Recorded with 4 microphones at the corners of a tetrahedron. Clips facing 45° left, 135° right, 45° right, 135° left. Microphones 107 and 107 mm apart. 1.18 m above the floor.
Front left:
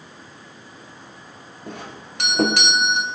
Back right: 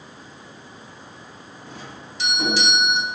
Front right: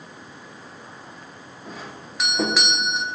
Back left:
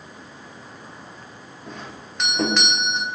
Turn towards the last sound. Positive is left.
turn(degrees=40)